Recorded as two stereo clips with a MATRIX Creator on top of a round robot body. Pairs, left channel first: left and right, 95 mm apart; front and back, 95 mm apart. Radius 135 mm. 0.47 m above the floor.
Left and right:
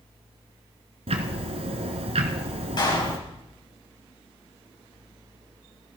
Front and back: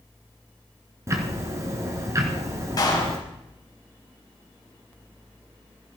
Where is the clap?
45° left, 3.5 m.